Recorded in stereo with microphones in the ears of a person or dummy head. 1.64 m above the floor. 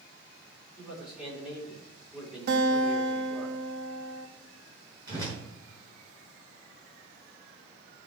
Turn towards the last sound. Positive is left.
turn(degrees=-25)  # may be behind; listen again after turning